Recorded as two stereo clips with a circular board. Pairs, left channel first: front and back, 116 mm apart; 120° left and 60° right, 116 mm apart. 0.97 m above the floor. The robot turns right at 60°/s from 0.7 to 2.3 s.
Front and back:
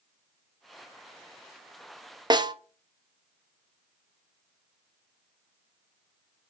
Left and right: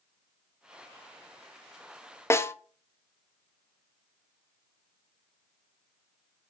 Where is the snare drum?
175° left, 0.6 m.